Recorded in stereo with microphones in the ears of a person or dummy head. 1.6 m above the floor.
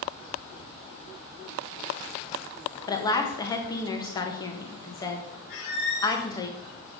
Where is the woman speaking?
25° left (ahead or behind), 1.3 m.